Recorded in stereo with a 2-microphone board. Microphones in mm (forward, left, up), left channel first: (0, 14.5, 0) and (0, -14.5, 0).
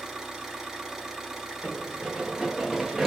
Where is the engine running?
15° right (ahead or behind), 1.3 m.